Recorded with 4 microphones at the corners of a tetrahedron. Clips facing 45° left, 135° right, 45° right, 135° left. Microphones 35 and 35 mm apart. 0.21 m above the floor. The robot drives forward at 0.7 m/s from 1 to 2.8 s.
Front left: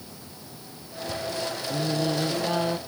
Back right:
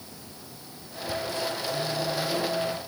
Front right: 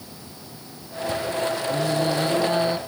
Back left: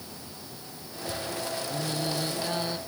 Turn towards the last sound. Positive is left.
turn(degrees=25)